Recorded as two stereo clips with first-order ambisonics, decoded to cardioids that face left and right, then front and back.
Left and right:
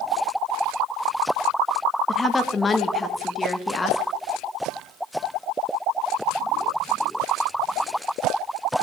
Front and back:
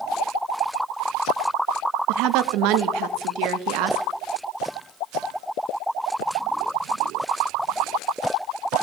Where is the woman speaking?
165° left, 0.6 m.